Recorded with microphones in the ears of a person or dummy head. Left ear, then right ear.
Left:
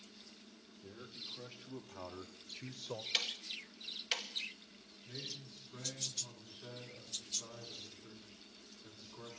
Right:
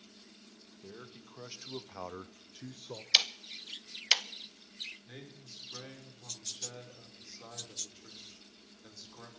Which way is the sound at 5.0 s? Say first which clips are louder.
Left 4 dB; 85° right.